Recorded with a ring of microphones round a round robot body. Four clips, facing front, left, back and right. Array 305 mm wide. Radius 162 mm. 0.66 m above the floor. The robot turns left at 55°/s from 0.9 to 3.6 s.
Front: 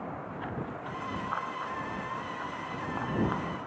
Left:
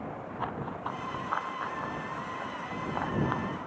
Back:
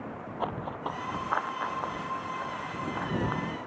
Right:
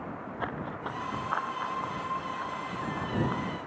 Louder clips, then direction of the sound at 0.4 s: Even, back 7 dB; 155° right.